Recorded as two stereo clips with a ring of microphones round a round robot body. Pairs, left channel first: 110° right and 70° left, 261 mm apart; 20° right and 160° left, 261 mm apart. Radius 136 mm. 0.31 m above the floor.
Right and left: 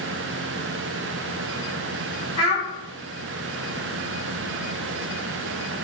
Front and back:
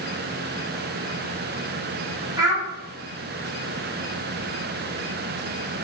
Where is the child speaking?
140° right, 0.9 m.